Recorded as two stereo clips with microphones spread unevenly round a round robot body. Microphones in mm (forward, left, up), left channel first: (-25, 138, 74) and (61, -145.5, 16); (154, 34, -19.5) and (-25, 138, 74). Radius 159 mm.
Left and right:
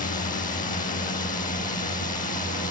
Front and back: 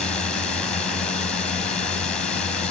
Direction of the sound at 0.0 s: 40° left.